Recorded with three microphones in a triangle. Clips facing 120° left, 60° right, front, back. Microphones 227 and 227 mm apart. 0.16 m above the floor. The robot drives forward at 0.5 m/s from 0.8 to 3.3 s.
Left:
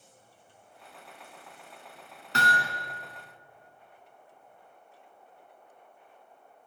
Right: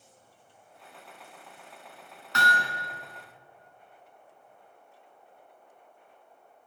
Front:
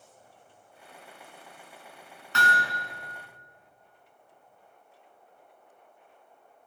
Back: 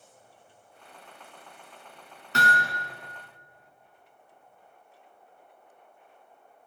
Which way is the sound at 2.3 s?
155° left.